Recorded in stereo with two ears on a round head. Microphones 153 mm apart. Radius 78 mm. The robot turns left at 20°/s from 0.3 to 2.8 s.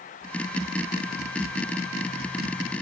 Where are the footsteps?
I don't hear footsteps.